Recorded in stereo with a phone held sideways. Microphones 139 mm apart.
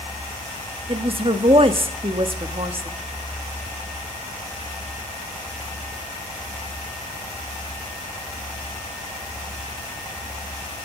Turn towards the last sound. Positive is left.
turn(degrees=-40)  # may be behind; listen again after turning